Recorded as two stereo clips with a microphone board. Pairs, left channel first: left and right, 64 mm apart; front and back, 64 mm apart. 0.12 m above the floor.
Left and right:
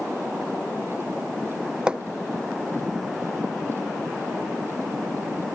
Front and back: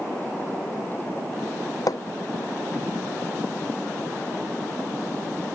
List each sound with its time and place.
1.9 s hammering: 15° right